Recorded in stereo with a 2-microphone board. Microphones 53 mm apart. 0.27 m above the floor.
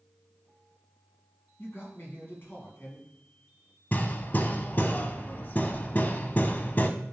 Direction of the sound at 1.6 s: 45° left (ahead or behind).